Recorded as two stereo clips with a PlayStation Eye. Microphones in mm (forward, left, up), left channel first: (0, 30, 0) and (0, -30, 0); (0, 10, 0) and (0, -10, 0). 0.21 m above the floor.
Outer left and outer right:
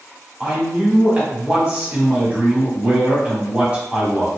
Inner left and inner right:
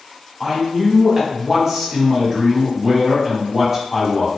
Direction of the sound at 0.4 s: 20° right (ahead or behind).